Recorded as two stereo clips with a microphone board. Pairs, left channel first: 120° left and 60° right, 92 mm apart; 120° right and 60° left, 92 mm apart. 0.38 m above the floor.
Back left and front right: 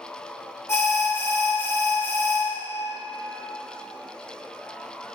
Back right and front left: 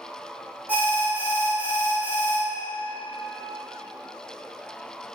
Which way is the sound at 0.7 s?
110° left.